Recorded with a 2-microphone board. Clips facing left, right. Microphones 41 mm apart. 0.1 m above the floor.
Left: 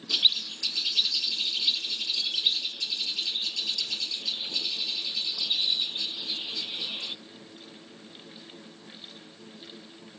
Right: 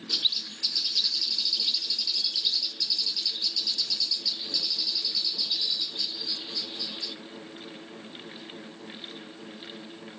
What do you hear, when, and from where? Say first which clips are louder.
0.1 s a bird: left 4 dB; 45° left (ahead or behind)